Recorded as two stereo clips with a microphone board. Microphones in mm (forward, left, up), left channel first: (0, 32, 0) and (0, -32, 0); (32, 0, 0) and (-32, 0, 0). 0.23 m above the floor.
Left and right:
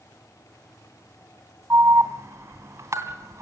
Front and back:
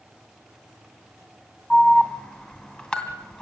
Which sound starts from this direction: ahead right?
An alarm, at 1.7 s.